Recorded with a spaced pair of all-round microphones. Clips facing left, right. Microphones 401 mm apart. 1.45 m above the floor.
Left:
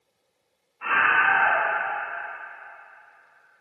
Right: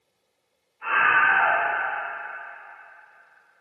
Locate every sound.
0.8 s a scream: 85° left, 3 m